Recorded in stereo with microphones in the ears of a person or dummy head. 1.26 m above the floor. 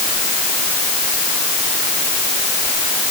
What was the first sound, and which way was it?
Only background noise.